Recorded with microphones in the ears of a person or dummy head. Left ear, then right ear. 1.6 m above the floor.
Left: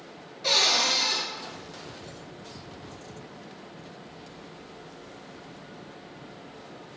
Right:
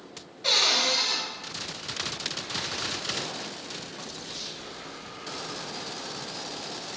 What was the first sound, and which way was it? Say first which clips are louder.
A cupboard door: even; 5° right (ahead or behind).